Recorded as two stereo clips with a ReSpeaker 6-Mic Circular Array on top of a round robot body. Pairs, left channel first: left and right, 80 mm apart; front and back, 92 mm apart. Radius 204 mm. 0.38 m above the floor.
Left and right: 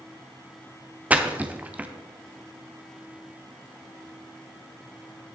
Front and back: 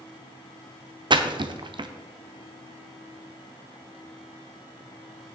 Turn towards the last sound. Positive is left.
turn(degrees=-160)